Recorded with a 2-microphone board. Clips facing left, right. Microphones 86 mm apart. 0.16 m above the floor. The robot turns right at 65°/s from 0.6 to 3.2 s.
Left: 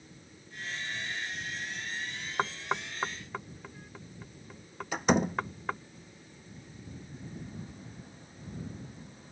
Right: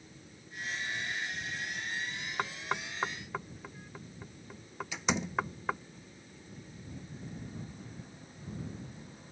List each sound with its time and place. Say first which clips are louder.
2.4 s knocking: left 4 dB; 20° left (ahead or behind); by 5.8 s 5° right (ahead or behind)
4.9 s a door slam: left 6 dB; 45° left (ahead or behind)